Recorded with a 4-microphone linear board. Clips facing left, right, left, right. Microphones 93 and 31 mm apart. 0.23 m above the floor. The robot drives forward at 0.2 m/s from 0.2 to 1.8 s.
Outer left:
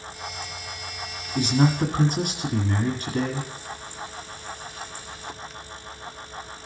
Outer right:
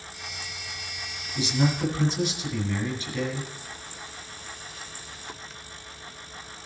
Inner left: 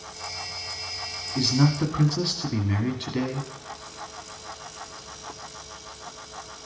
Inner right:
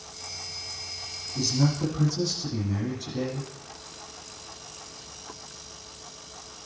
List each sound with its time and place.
1.4 s a man speaking: 50° left (ahead or behind), 1.7 m